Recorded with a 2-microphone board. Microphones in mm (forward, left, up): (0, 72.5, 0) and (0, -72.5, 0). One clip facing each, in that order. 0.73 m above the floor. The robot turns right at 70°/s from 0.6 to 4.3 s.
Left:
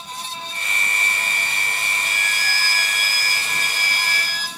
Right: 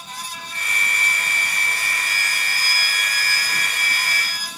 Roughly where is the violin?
Ahead right.